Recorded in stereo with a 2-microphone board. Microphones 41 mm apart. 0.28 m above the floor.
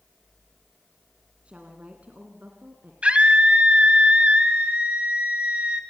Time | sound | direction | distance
1.4 | a woman speaking | 30° right (ahead or behind) | 2.5 m
3.0 | a scream | 30° right (ahead or behind) | 1.5 m